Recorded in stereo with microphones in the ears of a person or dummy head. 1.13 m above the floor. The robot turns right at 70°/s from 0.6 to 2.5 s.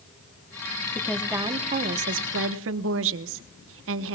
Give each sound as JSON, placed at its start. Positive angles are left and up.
{"t": 0.9, "sound": "a woman speaking", "azimuth_deg": 165, "distance_m": 0.9}